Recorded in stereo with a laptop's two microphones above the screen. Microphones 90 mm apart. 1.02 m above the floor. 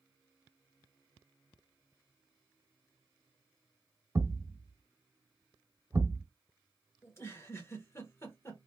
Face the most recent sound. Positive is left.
turn(degrees=30)  # may be behind; listen again after turning